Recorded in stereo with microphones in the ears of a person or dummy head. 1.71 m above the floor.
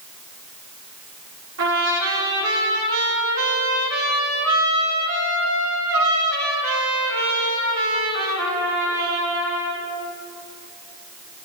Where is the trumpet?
65° right (ahead or behind), 7 m.